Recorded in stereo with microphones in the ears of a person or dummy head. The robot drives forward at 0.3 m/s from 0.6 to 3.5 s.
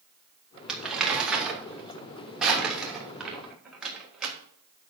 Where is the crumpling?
Centre (ahead or behind), 2 m.